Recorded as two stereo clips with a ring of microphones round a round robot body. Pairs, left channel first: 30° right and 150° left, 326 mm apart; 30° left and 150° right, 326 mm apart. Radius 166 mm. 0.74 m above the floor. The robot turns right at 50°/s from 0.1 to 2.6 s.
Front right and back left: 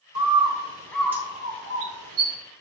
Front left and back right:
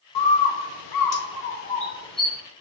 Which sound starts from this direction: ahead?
A bird, at 0.1 s.